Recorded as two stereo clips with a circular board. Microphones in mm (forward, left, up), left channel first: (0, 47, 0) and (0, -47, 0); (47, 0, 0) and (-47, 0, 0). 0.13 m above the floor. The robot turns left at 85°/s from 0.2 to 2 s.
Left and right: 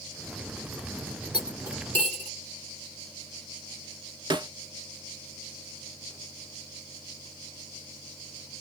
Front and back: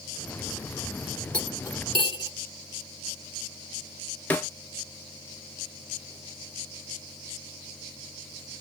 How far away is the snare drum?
About 0.6 m.